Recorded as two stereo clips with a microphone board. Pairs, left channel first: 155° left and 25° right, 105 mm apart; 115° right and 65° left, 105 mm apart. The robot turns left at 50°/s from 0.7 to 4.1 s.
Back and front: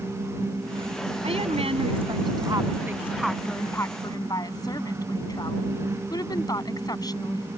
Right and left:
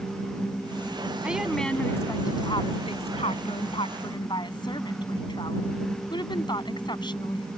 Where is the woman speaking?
10° right; by 7.5 s 155° right.